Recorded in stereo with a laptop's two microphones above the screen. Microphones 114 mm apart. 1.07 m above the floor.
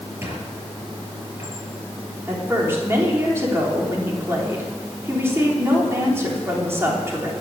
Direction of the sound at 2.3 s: 20° right (ahead or behind).